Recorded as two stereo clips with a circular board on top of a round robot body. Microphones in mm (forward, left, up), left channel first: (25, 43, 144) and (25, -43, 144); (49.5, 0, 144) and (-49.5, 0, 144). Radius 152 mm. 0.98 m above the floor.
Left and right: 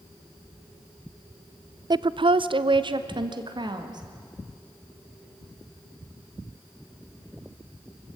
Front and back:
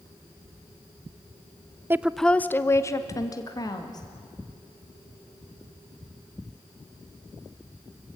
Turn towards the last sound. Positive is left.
turn(degrees=-50)